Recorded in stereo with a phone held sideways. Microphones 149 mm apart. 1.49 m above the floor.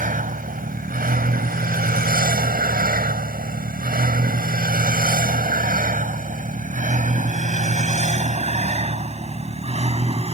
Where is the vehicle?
65° right (ahead or behind); by 10.3 s 40° right (ahead or behind).